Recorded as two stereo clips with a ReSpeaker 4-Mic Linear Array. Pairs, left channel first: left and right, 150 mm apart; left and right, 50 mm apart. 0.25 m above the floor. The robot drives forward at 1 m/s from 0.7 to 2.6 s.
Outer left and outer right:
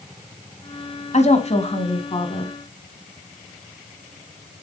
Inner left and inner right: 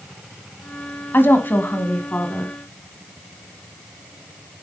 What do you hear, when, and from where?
1.1 s a woman speaking: 50° left (ahead or behind), 1.6 m; by 2.5 s 30° left (ahead or behind), 2.5 m